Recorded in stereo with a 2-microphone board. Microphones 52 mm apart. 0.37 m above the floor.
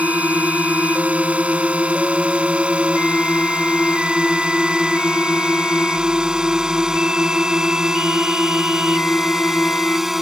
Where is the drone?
25° right (ahead or behind); by 10.2 s 5° right (ahead or behind).